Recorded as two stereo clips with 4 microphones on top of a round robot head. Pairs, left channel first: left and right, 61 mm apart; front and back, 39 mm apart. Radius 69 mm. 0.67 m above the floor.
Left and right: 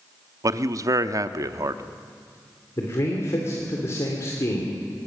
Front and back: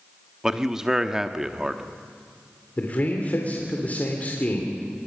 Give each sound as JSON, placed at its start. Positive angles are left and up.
{"t": 0.4, "sound": "a man speaking", "azimuth_deg": -100, "distance_m": 1.0}
{"t": 2.8, "sound": "a man speaking", "azimuth_deg": 45, "distance_m": 3.0}